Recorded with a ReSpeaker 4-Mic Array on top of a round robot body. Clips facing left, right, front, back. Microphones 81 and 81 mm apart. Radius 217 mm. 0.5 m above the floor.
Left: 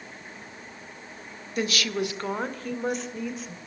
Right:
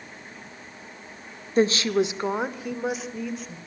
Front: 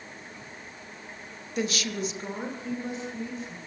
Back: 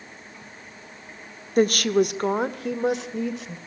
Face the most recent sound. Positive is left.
turn(degrees=180)